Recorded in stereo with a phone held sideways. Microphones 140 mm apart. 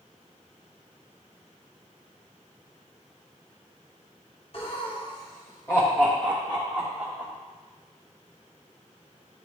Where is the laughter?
45° left (ahead or behind), 1.2 m; by 7.3 s 5° right (ahead or behind), 1.7 m.